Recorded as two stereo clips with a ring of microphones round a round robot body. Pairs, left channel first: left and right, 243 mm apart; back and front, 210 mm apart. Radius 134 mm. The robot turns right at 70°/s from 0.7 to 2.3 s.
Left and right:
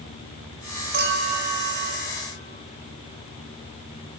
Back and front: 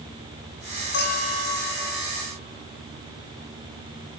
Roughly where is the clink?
Behind right.